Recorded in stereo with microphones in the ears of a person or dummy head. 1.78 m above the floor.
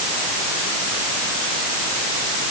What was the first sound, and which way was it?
Only background noise.